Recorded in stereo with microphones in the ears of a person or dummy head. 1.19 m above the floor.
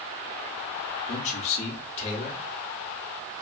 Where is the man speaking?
40° left (ahead or behind), 0.8 m.